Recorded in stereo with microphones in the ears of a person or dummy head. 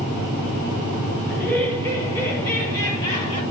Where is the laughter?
5° left (ahead or behind), 5.5 m; by 3.4 s 20° left (ahead or behind), 6 m.